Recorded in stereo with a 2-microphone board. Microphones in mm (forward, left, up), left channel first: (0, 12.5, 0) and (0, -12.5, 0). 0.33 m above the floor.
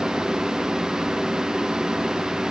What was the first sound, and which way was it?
Only background noise.